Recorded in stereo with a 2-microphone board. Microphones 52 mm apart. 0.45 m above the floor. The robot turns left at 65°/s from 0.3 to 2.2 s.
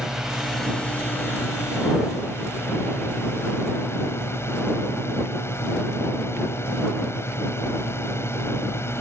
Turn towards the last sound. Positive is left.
turn(degrees=65)